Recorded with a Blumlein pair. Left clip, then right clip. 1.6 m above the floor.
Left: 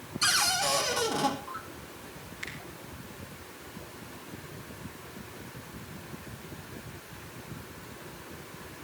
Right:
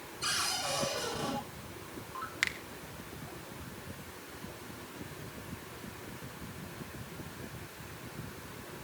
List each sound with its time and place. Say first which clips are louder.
0.2 s a cupboard door: left 7 dB; 40° left, 4 m
2.4 s a finger snap: right 7 dB; 40° right, 1.4 m